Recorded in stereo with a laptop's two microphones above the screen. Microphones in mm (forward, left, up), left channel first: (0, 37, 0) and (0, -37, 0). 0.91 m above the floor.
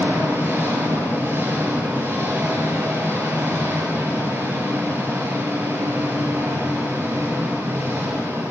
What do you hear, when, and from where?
0.0 s an engine running: 30° right (ahead or behind), 7 m